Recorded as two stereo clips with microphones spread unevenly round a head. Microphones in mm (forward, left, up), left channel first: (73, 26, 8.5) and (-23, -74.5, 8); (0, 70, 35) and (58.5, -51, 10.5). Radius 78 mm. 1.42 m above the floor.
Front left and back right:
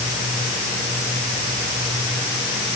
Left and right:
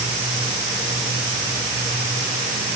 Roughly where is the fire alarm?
No fire alarm in this recording.